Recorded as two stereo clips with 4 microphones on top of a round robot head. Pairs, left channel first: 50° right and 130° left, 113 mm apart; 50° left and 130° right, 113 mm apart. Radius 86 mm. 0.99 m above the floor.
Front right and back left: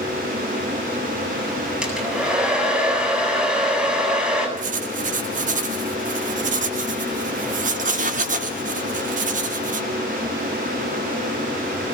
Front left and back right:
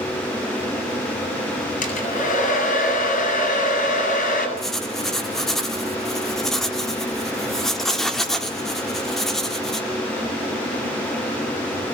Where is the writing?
140° left, 2 m.